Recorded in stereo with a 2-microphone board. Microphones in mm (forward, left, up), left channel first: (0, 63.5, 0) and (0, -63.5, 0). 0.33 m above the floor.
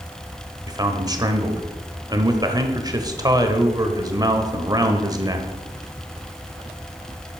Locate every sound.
0.7 s a man speaking: 30° right (ahead or behind), 1.1 m